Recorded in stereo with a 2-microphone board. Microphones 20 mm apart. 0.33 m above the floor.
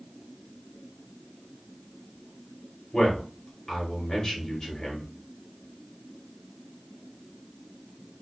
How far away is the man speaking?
About 1.2 m.